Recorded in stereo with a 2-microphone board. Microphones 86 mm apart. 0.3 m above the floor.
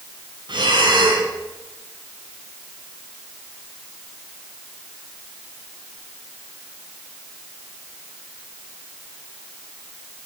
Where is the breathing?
60° right (ahead or behind), 2.5 m.